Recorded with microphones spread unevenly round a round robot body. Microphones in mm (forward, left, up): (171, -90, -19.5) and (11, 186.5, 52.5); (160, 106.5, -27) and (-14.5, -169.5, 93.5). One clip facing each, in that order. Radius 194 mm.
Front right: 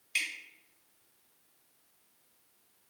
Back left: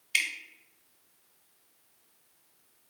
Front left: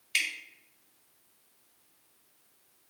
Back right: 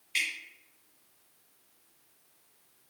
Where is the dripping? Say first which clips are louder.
Back left 3 dB, even; 75° left, 1.3 m.